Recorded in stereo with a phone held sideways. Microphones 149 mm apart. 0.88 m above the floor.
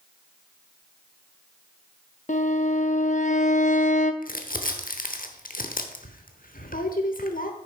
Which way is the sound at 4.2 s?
70° left (ahead or behind).